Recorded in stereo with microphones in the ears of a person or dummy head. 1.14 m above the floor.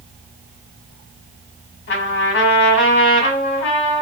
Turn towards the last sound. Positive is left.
turn(degrees=60)  # may be behind; listen again after turning